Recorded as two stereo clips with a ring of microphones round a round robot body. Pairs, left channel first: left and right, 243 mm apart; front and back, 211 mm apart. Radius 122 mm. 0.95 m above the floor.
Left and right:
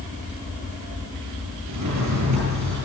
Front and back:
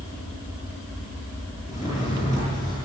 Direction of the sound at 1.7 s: 65° right.